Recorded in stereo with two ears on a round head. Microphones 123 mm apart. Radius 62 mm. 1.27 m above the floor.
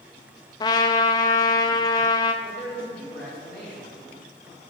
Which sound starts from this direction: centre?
A man speaking, at 2.4 s.